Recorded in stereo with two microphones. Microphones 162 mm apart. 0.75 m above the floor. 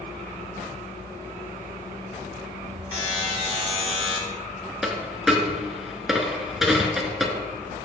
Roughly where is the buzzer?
Left.